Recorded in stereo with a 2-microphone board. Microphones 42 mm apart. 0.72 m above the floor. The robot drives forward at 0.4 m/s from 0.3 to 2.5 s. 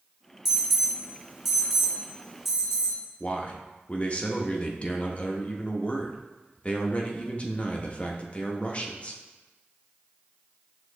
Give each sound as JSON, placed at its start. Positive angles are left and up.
{"t": 0.5, "sound": "an alarm", "side_deg": -10, "distance_m": 0.8}
{"t": 3.2, "sound": "a man speaking", "side_deg": 30, "distance_m": 0.5}